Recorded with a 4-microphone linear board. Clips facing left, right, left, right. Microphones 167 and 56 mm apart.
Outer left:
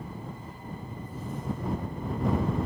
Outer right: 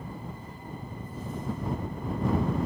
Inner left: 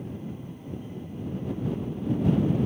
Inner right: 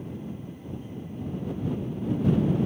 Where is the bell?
No bell in this recording.